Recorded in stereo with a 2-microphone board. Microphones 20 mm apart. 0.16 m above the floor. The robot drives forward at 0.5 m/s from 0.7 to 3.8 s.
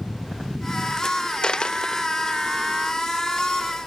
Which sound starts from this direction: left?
A dropped coin, at 1.4 s.